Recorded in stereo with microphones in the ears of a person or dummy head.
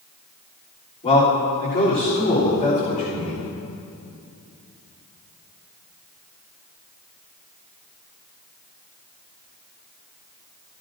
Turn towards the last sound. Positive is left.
turn(degrees=35)  # may be behind; listen again after turning